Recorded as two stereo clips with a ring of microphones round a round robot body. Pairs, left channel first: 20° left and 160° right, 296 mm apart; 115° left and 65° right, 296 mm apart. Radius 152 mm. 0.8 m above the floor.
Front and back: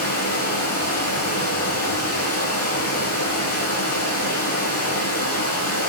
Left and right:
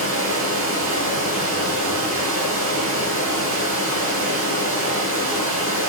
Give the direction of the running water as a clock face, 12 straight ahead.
1 o'clock.